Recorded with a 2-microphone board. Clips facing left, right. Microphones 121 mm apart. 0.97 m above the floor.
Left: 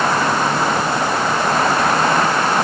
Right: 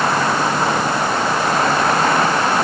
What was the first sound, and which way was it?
Only background noise.